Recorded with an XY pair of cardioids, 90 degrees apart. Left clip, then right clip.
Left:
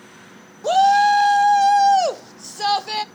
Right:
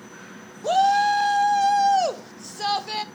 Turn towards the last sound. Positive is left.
turn(degrees=30)